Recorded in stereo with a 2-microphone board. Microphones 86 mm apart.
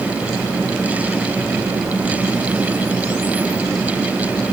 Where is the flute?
I don't hear a flute.